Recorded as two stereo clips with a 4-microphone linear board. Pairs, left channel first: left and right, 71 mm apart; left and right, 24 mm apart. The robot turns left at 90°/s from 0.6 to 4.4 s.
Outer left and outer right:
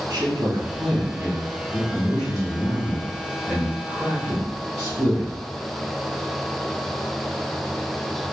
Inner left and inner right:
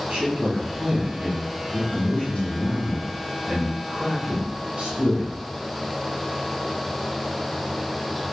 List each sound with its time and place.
0.1 s a man speaking: 85° right, 2 m; by 5.4 s 65° right, 2 m